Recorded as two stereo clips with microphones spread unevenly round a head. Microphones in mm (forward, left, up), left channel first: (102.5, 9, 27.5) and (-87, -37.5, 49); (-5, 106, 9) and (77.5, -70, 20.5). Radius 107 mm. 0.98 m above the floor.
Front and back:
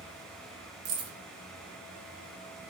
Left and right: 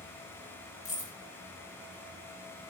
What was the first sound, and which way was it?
Keys jangling, 175° left.